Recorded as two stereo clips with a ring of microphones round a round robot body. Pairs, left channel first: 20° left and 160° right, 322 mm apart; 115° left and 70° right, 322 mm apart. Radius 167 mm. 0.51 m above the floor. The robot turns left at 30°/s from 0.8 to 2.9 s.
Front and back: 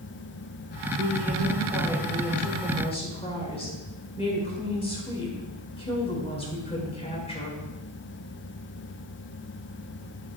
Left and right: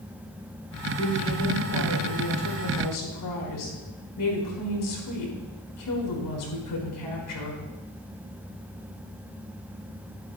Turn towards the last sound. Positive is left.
turn(degrees=95)